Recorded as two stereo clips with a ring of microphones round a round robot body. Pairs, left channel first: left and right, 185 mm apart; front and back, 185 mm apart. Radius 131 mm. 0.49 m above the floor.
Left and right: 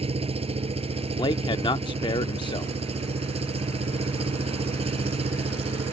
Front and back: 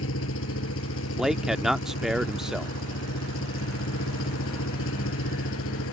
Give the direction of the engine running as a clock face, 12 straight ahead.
1 o'clock.